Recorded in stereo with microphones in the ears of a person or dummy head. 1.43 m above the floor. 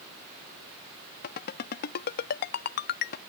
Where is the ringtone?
50° left (ahead or behind).